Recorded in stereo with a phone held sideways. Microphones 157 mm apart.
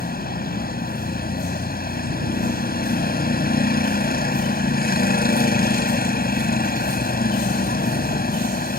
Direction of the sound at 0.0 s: 75° left (ahead or behind).